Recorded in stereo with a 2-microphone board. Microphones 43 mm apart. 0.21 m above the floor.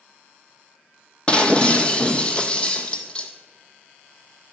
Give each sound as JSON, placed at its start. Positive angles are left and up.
{"t": 1.3, "sound": "breaking glass", "side_deg": 25, "distance_m": 0.7}